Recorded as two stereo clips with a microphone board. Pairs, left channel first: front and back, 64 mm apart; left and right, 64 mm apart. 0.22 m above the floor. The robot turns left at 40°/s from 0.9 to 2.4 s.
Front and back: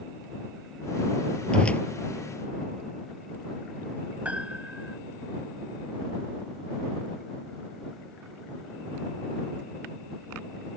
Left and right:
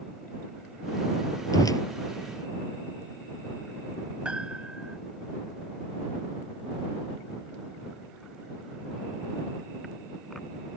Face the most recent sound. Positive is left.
turn(degrees=-145)